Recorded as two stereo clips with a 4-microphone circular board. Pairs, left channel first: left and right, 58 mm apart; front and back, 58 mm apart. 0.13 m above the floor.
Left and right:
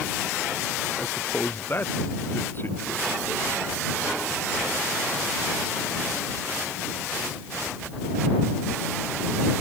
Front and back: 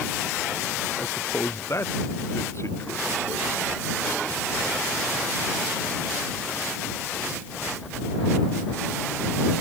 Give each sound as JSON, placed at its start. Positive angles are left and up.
{"t": 1.0, "sound": "a man speaking", "azimuth_deg": 40}